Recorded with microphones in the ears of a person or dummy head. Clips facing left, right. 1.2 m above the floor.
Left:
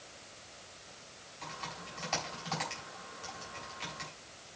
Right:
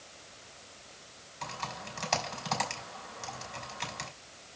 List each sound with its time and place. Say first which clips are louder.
1.4 s typing on a keyboard: right 5 dB; 65° right (ahead or behind), 3.5 m